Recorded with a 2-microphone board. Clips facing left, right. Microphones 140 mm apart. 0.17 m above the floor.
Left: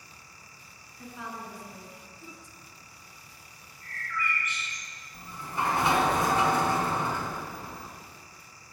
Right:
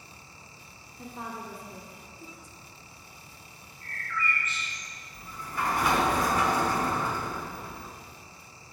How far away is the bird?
About 2.0 m.